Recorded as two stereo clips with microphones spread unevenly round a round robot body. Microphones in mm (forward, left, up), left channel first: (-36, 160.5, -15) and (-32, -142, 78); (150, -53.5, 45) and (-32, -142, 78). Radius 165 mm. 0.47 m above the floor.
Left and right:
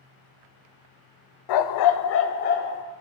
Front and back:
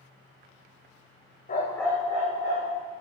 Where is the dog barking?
85° left, 0.5 m; by 2.8 s 155° left, 1.2 m.